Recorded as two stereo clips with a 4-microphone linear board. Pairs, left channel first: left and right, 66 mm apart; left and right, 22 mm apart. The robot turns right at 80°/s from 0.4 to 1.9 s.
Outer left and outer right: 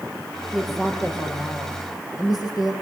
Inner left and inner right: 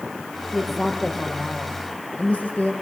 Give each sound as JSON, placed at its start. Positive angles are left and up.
{"t": 0.5, "sound": "a woman speaking", "azimuth_deg": -15, "distance_m": 7.5}